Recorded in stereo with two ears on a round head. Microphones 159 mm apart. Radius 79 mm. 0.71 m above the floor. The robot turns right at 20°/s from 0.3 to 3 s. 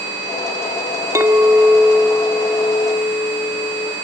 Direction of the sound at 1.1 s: 20° right.